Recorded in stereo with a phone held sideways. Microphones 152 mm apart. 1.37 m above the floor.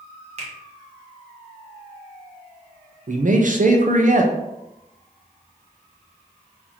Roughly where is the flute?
No flute in this recording.